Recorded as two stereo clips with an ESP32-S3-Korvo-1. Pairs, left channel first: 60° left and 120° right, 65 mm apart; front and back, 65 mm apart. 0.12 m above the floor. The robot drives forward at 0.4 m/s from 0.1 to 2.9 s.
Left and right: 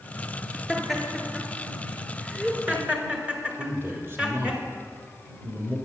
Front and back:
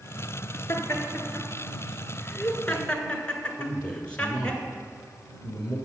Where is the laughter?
30° right, 1.9 m; by 4.6 s 65° right, 1.5 m.